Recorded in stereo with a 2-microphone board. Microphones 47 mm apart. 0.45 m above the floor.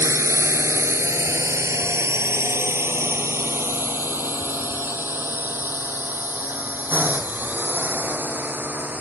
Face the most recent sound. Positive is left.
turn(degrees=-40)  # may be behind; listen again after turning